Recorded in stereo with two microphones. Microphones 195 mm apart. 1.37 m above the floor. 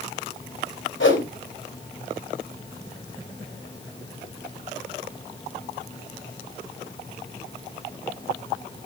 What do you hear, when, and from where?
1.0 s a whoosh: 80° left, 4 m